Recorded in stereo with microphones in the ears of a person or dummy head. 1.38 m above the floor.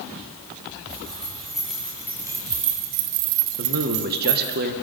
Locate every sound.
0.9 s keys jangling: centre (ahead or behind), 2.0 m; by 4.6 s 40° right (ahead or behind), 1.4 m
3.6 s a man speaking: 50° right (ahead or behind), 1.2 m